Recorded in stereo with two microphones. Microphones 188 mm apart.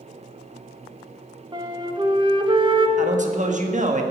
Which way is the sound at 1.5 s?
25° right (ahead or behind).